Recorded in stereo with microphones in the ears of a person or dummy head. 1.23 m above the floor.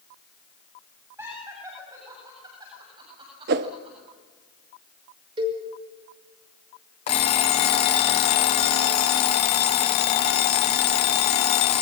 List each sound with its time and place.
1.2 s laughter: 15° right (ahead or behind), 7.5 m; by 4.0 s 35° right (ahead or behind), 7.5 m
3.5 s a whoosh: 50° right (ahead or behind), 0.8 m
5.4 s a cowbell: 30° right (ahead or behind), 6 m
7.1 s an alarm clock: 30° left (ahead or behind), 0.6 m